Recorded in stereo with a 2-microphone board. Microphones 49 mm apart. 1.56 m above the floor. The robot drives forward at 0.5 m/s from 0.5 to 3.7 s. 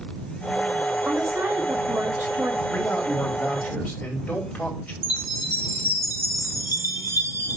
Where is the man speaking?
35° left (ahead or behind), 4.5 m; by 4.9 s 30° left (ahead or behind), 5 m.